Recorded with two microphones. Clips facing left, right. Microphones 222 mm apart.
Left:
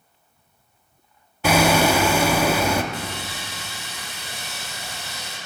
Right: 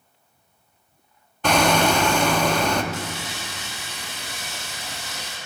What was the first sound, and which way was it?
Hammering, 5° left (ahead or behind).